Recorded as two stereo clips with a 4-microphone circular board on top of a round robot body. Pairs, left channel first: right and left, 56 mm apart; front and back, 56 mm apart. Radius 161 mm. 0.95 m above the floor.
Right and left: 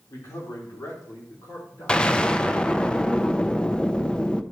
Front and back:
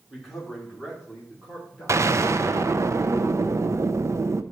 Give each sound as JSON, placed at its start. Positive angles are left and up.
{"t": 0.1, "sound": "a man speaking", "azimuth_deg": -85, "distance_m": 2.5}
{"t": 1.9, "sound": "an explosion", "azimuth_deg": -160, "distance_m": 0.6}